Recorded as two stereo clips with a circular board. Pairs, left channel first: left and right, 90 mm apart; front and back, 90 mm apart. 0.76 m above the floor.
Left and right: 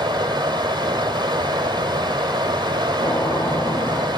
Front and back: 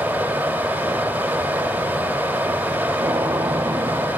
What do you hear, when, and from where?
0.0 s running water: 110° right, 1.6 m
3.0 s a gunshot: 125° left, 1.9 m